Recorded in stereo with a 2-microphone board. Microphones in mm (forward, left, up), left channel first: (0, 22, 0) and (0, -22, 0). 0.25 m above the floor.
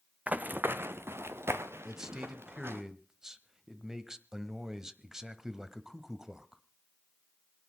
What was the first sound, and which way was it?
Running footsteps, 35° right (ahead or behind).